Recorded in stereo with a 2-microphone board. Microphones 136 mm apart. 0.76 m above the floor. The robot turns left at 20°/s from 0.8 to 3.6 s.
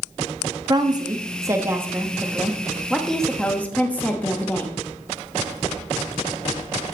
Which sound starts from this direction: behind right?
A woman speaking, at 0.7 s.